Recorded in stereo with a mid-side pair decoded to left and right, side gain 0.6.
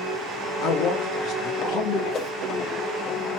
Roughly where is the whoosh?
Ahead left.